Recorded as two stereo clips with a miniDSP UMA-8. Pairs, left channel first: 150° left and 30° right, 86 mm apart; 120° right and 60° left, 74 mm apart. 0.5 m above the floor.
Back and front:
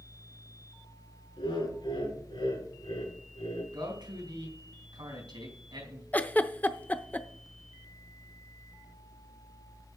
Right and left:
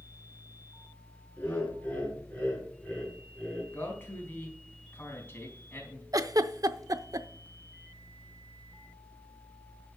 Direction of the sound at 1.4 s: 170° left.